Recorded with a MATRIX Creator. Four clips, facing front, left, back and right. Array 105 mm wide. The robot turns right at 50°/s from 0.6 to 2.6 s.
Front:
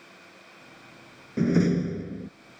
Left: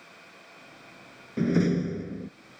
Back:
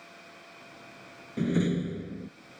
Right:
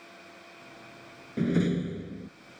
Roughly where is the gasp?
I don't hear a gasp.